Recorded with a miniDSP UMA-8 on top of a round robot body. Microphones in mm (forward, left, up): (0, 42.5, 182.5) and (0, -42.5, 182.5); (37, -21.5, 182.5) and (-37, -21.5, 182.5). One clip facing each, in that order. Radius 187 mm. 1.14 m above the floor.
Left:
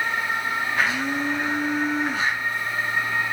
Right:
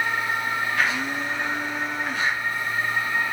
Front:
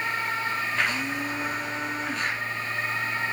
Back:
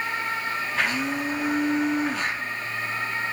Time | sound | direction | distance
0.8 | a blender | 150° left | 0.7 m